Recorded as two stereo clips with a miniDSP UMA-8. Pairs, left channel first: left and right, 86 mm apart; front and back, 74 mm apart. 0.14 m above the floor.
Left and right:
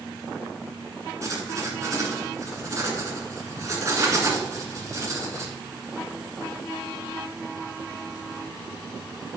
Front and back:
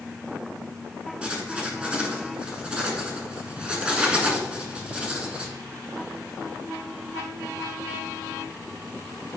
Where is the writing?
110° right, 1.6 m.